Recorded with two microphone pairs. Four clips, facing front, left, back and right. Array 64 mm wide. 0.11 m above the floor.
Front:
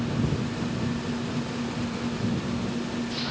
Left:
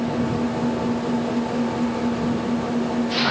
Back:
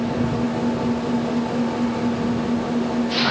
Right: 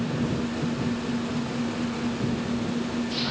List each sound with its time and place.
0.0 s an engine running: 130° left